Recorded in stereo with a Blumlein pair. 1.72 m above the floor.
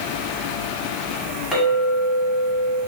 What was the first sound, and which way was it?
A clink, straight ahead.